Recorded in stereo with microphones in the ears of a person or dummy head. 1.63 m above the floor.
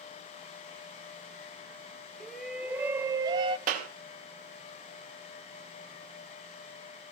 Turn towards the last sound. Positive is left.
turn(degrees=-50)  # may be behind; listen again after turning